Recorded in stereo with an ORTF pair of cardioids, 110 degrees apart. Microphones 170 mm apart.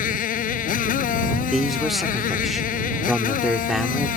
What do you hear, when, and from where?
0.0 s a motorcycle: 60° left
1.5 s a man speaking: straight ahead